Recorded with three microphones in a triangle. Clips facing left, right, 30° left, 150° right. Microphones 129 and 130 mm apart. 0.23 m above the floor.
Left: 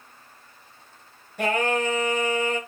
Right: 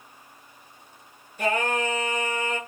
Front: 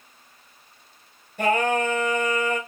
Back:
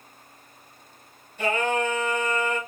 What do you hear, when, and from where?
1.4 s singing: 60° left, 2.0 m